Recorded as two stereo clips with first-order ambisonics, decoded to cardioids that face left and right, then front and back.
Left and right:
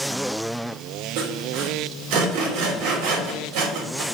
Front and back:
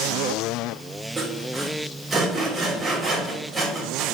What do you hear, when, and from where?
1.2 s sawing: 100° right, 2.5 m